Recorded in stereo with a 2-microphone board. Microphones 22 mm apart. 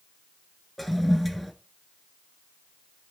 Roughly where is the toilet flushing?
Centre.